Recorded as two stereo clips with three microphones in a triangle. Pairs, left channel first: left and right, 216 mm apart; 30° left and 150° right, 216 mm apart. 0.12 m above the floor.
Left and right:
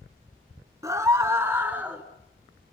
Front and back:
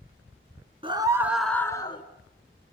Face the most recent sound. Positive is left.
turn(degrees=-10)